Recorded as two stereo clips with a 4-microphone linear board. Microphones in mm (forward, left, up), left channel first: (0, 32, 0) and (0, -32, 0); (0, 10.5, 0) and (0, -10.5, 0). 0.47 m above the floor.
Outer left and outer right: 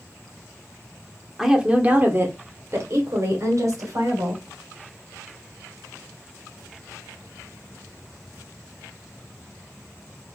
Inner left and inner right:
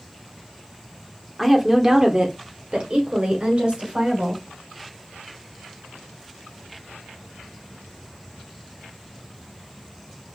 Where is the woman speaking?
5° right (ahead or behind), 0.9 m; by 4.4 s 70° right (ahead or behind), 2.5 m.